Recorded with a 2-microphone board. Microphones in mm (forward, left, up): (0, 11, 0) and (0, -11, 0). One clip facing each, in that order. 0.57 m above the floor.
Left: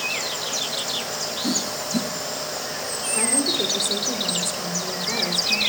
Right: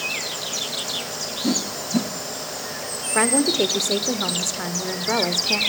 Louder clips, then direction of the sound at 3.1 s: Right 4 dB; 55° right (ahead or behind).